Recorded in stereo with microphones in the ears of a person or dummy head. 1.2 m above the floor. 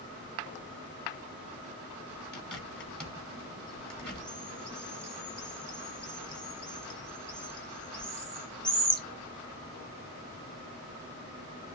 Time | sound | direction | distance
2.3 | a bird | 5° left (ahead or behind) | 1.1 m